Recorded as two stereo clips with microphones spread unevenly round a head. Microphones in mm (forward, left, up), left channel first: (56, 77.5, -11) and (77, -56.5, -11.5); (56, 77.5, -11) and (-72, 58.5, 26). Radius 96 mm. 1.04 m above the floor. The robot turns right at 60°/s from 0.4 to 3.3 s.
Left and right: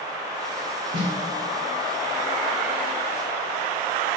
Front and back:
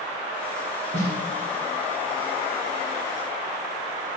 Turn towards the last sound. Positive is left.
turn(degrees=105)